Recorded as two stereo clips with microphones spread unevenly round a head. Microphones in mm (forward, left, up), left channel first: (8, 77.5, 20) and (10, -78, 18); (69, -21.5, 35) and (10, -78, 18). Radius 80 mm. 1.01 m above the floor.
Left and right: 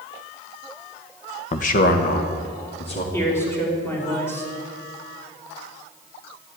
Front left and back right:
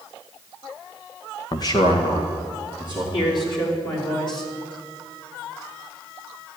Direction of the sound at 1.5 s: 75° left.